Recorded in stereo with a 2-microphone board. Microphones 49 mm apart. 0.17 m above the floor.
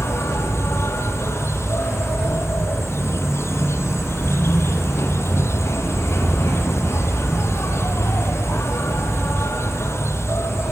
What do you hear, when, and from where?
0.0 s an insect: 70° left (ahead or behind), 1.5 m